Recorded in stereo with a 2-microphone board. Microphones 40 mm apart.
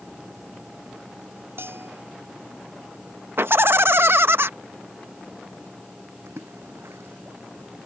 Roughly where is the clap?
No clap in this recording.